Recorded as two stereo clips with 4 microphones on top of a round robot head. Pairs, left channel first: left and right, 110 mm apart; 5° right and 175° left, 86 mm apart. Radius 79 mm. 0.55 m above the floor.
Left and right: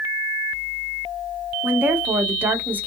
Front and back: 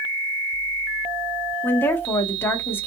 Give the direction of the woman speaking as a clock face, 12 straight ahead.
1 o'clock.